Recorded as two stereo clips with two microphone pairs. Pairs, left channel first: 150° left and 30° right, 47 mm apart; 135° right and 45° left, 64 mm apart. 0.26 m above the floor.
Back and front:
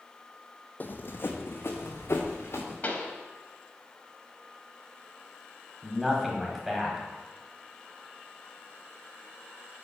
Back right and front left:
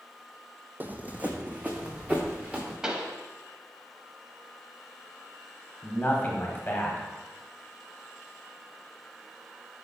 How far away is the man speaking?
About 1.2 m.